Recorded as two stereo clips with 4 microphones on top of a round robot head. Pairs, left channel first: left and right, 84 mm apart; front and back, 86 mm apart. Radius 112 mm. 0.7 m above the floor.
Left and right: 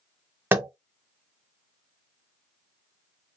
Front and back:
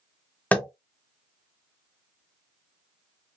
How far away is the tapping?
About 1.0 m.